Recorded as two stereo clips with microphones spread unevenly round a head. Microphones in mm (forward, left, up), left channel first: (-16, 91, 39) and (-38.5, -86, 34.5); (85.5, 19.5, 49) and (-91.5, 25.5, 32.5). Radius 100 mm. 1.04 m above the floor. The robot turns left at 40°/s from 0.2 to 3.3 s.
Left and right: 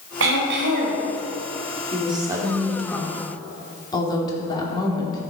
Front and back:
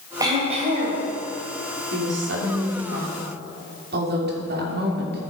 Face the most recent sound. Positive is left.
turn(degrees=150)